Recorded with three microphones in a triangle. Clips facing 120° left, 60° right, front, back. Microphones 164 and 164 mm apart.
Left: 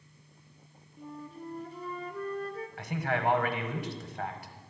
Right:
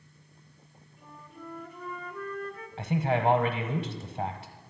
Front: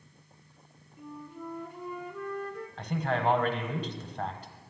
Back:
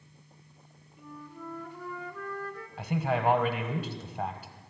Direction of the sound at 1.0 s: 70° left.